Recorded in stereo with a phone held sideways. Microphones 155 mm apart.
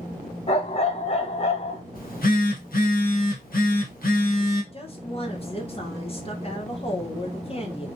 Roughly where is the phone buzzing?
Left.